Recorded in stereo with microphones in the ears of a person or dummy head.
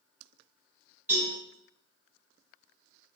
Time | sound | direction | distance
1.1 | a cowbell | 15° right (ahead or behind) | 2.0 m